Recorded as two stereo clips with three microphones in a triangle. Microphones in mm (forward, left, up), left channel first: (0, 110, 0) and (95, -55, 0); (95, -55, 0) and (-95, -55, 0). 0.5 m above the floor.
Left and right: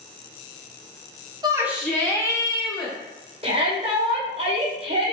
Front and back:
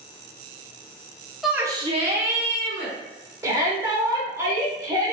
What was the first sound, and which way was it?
A shout, 90° right.